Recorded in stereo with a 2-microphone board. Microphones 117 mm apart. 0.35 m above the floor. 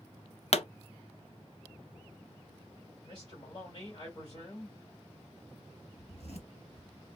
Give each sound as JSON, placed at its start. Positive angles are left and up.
{"t": 0.5, "sound": "a pop", "side_deg": 60, "distance_m": 0.5}
{"t": 3.0, "sound": "a man speaking", "side_deg": 45, "distance_m": 1.5}
{"t": 6.0, "sound": "a zipper", "side_deg": 65, "distance_m": 1.9}